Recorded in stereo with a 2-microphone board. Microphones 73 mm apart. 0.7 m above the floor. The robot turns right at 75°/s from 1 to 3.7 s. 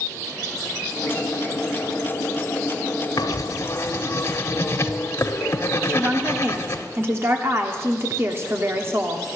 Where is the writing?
100° left, 0.9 m; by 6.9 s 135° left, 0.9 m.